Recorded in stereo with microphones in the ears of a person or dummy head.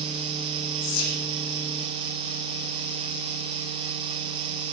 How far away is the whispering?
About 1.1 m.